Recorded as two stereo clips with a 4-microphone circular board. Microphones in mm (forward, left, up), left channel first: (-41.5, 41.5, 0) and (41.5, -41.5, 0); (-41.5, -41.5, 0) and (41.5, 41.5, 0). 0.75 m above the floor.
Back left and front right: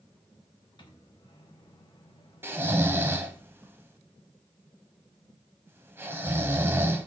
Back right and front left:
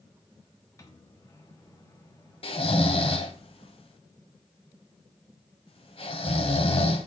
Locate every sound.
0.8 s a microwave: 170° left, 1.3 m
2.4 s snoring: 115° right, 1.0 m